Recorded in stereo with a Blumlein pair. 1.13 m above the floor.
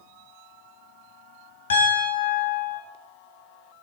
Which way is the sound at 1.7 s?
65° left.